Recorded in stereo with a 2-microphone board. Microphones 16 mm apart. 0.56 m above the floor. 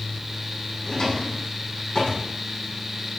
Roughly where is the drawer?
Left.